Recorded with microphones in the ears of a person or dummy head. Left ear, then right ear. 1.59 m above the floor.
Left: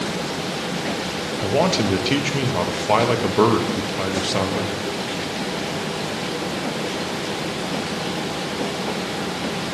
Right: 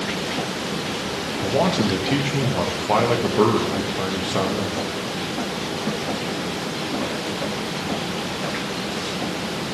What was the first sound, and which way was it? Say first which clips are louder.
A man speaking: left 1 dB; 20° left (ahead or behind).